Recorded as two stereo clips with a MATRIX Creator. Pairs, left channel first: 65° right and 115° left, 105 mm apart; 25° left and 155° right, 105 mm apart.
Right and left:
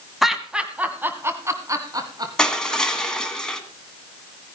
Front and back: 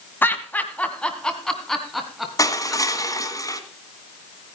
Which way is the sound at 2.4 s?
10° left.